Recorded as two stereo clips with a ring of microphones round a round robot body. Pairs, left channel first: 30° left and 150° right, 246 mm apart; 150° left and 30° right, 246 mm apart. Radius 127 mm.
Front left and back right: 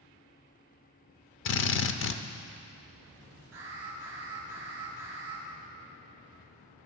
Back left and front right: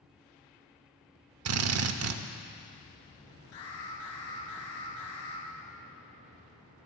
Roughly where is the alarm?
Behind.